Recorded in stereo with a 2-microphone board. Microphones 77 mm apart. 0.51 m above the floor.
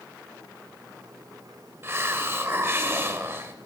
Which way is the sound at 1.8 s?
30° right (ahead or behind).